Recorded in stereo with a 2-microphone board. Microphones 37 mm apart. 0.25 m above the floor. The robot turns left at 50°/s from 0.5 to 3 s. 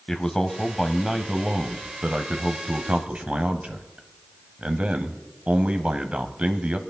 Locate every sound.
0.1 s a man speaking: 15° left, 1.1 m; by 6.8 s 110° right, 1.1 m